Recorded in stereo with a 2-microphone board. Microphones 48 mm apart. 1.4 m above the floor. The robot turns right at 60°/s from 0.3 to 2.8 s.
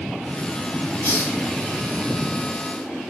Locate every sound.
1.0 s a hiss: 60° left (ahead or behind), 2.5 m; by 1.4 s 75° left (ahead or behind), 2.5 m